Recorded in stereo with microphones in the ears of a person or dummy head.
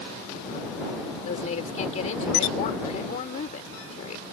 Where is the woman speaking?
45° left (ahead or behind).